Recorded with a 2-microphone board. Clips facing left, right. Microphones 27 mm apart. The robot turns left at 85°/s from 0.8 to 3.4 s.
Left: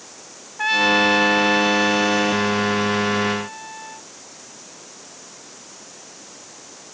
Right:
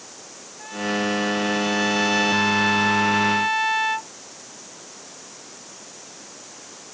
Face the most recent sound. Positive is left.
turn(degrees=-120)